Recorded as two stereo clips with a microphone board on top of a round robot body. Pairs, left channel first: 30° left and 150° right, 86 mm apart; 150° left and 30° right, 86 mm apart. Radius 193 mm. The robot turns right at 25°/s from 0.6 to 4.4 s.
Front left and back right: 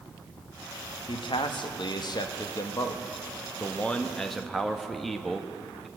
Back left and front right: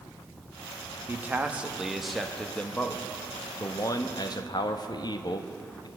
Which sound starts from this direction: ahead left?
A man speaking, at 1.1 s.